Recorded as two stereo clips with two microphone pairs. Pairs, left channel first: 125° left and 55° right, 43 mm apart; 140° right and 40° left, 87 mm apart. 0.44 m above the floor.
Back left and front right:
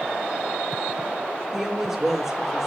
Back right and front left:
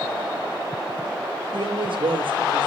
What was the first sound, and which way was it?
A woman speaking, 30° left.